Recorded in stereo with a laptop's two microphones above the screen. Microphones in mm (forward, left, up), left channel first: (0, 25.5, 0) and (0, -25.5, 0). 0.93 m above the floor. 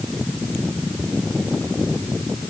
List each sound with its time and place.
Only background noise.